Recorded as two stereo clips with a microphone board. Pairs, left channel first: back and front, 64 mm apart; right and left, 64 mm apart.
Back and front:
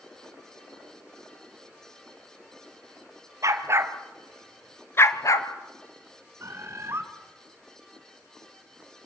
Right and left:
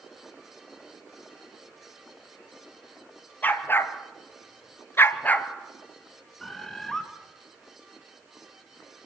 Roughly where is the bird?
Ahead.